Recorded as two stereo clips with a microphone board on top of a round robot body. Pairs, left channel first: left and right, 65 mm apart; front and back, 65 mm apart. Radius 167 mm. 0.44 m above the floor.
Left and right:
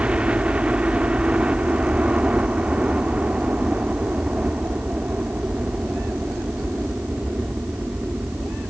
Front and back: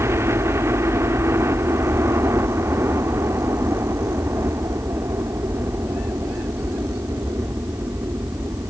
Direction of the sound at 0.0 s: 155° right.